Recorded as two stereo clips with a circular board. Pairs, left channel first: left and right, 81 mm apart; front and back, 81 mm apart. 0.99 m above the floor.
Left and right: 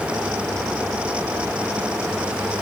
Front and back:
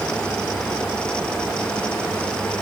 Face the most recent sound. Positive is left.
No sound to turn to.